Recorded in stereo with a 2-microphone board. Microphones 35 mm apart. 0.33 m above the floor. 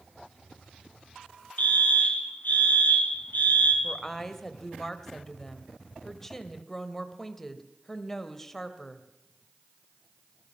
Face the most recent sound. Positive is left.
turn(degrees=10)  # may be behind; listen again after turning